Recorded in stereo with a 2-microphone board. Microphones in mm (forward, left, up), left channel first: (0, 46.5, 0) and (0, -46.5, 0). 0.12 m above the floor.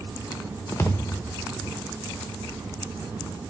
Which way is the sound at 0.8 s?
30° left (ahead or behind).